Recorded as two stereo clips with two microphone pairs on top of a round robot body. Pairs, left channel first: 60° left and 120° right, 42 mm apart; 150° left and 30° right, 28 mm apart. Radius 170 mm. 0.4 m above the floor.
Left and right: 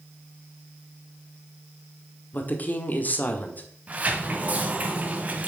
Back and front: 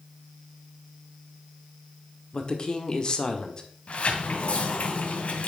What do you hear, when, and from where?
2.3 s a woman speaking: 95° left, 1.7 m
3.9 s a sliding door: 175° right, 1.9 m